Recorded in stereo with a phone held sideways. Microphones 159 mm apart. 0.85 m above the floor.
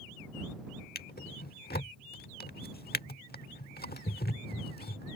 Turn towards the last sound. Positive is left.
turn(degrees=80)